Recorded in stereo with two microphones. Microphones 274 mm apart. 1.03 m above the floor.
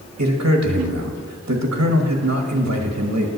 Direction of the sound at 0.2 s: 65° right (ahead or behind).